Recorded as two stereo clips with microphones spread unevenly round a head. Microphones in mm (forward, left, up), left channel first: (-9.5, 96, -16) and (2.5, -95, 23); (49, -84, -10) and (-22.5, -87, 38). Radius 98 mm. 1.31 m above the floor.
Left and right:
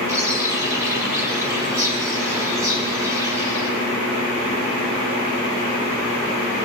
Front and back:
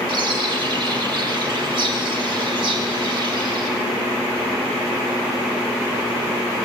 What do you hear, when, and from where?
0.1 s a bird: 165° right, 5.5 m